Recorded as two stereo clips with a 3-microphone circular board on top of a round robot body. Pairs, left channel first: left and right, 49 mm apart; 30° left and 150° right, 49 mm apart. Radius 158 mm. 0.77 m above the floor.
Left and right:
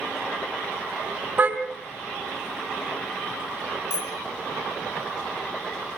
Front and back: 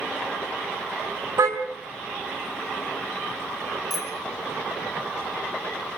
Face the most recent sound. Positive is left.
turn(degrees=120)